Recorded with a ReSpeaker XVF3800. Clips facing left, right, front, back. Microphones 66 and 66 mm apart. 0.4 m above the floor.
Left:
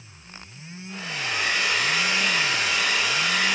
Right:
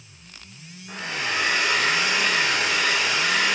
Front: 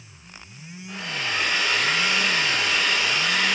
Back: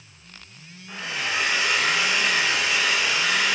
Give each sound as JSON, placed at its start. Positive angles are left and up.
{"t": 0.9, "sound": "a hair dryer", "azimuth_deg": -100, "distance_m": 0.9}